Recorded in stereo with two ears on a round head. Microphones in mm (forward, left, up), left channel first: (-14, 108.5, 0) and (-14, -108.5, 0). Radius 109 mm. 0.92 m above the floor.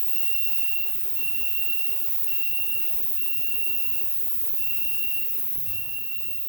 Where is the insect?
10° right (ahead or behind), 1.2 m.